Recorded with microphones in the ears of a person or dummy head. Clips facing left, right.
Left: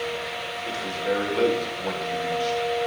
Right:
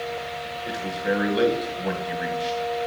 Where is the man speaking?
10° right (ahead or behind), 1.6 m.